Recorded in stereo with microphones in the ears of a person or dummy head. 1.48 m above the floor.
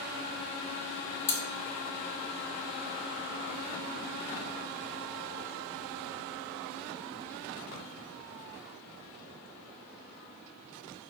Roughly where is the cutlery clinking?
Centre.